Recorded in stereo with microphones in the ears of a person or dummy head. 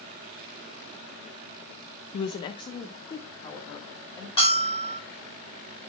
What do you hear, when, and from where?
2.1 s a woman speaking: 30° left (ahead or behind), 0.6 m; by 4.3 s 15° left (ahead or behind), 2.5 m
4.4 s a bell: 20° left (ahead or behind), 4.5 m